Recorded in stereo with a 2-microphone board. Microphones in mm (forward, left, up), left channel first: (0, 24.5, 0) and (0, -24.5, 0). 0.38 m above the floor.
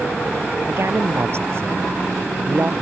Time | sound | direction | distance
0.7 | a woman speaking | 60° right (ahead or behind) | ?